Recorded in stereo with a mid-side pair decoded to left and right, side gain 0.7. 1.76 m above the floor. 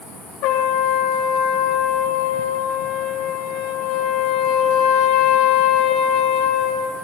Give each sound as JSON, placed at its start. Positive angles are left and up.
{"t": 0.4, "sound": "a trumpet", "azimuth_deg": 65, "distance_m": 1.8}